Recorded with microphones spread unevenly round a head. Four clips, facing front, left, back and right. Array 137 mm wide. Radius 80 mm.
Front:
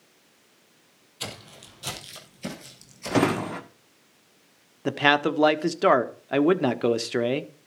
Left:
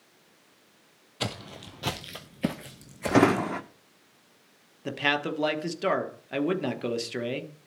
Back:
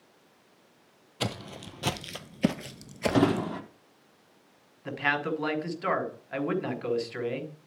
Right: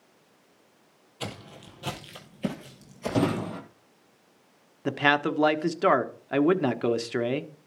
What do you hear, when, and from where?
1.2 s footsteps: 110° left, 1.8 m; by 3.5 s 165° left, 1.2 m
3.1 s a drawer: 60° left, 1.6 m
4.8 s a man speaking: 25° right, 1.3 m